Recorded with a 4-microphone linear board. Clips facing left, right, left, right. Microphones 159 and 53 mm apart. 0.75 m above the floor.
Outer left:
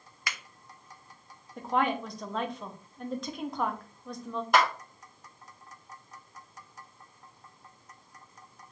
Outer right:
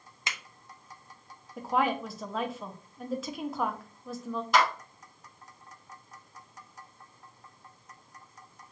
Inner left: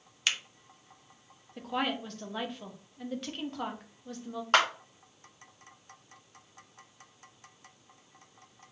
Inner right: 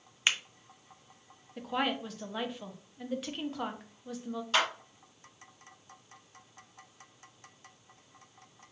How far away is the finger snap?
About 0.7 m.